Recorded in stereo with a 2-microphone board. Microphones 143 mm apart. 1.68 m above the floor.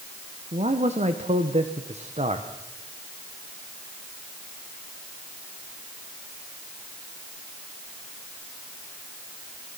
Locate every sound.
0.5 s a man speaking: 50° right (ahead or behind), 1.5 m